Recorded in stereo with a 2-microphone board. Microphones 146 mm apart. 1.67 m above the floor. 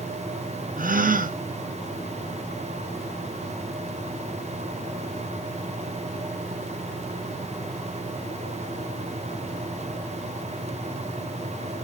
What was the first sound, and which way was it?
A gasp, 70° right (ahead or behind).